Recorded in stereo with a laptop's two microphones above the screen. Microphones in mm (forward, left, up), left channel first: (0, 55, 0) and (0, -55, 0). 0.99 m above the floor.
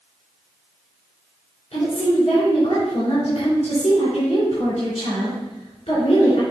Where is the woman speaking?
85° left, 3.5 m.